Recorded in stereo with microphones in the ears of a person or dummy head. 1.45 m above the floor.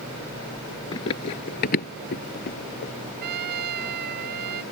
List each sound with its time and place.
0.9 s running footsteps: 25° left (ahead or behind); by 2.9 s 40° left (ahead or behind)
3.2 s a trumpet: 55° right (ahead or behind)